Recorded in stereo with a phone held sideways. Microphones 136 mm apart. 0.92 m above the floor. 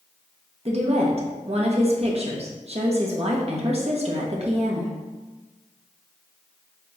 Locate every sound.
0.7 s a woman speaking: 50° right (ahead or behind), 1.0 m